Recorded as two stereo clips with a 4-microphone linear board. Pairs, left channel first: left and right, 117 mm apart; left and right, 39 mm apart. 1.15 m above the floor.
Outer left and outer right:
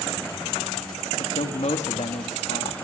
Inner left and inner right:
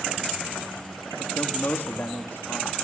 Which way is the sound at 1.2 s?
70° left (ahead or behind).